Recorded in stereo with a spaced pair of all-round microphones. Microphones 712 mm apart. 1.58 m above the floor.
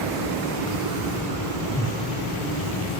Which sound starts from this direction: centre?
A whoosh, at 1.6 s.